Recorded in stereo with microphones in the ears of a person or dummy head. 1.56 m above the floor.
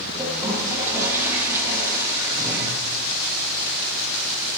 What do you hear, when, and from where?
0.2 s a toilet flushing: 15° right (ahead or behind), 7.5 m